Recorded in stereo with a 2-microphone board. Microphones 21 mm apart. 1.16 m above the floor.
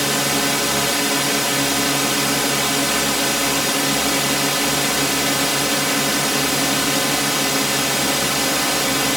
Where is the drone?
10° right (ahead or behind).